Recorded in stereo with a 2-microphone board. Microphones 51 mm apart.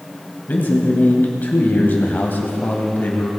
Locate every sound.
0.5 s a man speaking: 35° left (ahead or behind), 2 m